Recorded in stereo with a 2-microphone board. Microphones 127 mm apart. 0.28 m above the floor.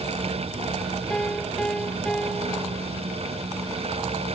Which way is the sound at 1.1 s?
10° left (ahead or behind).